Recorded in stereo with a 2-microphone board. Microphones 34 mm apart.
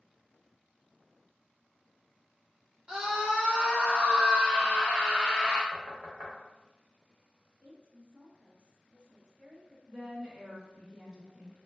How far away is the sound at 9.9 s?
About 0.7 m.